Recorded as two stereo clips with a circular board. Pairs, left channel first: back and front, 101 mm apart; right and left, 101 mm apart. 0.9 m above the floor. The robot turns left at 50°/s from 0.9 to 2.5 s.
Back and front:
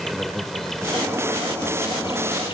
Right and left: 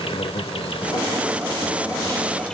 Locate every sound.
0.0 s an insect: 95° right; by 2.5 s 175° right